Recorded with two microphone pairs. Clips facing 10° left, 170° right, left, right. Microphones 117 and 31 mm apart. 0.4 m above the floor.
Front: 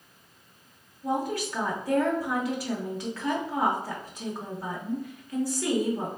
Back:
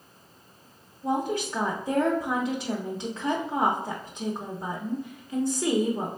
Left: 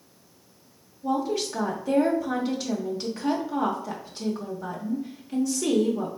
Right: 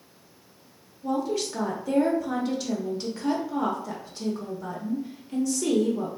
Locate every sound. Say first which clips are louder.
1.0 s a woman speaking: back 2 dB, left 1 dB; 165° left, 0.8 m